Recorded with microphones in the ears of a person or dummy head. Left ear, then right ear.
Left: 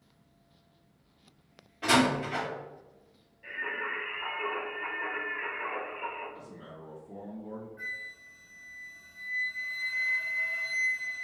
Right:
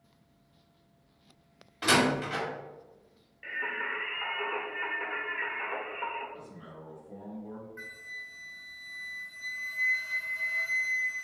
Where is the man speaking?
5° left (ahead or behind), 1.7 m.